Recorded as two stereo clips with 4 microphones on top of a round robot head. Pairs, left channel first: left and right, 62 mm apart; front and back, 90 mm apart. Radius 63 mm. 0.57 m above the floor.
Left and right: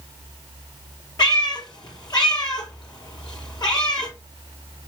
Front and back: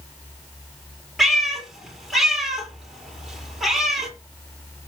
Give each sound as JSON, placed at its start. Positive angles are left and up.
{"t": 1.2, "sound": "a cat meowing", "azimuth_deg": 90, "distance_m": 4.5}